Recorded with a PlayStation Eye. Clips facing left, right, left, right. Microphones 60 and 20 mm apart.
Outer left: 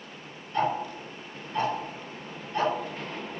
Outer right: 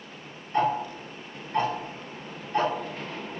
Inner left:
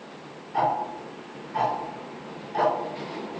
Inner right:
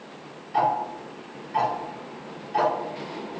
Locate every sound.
0.5 s ticking: 45° right (ahead or behind), 0.9 m